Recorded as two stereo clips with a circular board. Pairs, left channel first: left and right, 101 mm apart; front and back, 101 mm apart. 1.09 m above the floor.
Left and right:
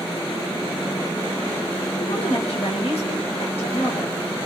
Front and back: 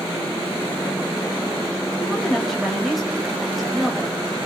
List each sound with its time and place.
2.0 s a woman speaking: 90° left, 6 m